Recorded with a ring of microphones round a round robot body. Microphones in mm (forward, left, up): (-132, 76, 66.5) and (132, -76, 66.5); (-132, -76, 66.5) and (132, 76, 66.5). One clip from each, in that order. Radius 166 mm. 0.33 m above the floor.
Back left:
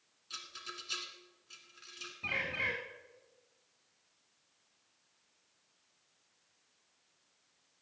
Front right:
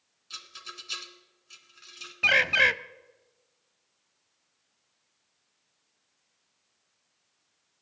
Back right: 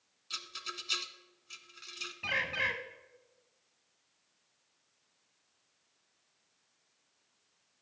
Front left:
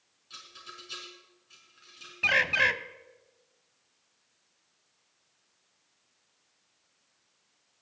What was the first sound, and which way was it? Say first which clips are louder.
A rattle: front right 3 dB, back right 6 dB; 110° right.